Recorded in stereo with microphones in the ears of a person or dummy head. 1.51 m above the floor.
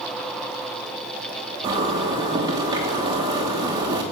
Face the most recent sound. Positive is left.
turn(degrees=-20)  # may be behind; listen again after turning